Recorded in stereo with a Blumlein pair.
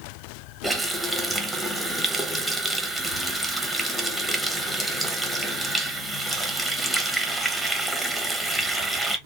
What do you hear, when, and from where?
0.6 s a running tap: 5° right, 0.7 m